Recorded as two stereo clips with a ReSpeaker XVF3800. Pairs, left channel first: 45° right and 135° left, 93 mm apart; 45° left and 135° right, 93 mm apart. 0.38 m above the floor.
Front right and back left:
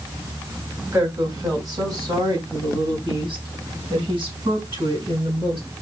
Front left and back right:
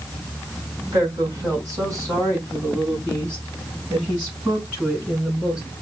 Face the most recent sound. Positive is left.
turn(degrees=150)